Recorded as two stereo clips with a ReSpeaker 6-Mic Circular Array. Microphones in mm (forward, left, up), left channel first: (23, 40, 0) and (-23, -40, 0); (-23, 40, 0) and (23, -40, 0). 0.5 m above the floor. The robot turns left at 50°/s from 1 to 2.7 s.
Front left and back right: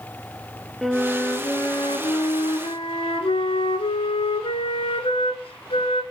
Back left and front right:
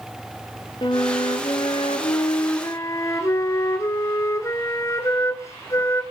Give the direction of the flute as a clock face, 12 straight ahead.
7 o'clock.